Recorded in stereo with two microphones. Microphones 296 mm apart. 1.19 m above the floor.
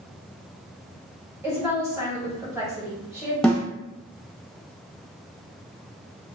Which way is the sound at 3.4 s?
Centre (ahead or behind).